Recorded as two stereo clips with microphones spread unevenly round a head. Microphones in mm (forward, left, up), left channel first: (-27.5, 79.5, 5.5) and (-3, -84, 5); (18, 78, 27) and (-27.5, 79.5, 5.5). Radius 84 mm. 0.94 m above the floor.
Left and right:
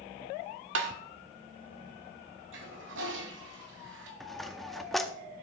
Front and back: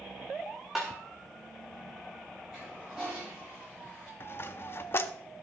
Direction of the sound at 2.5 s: 90° right.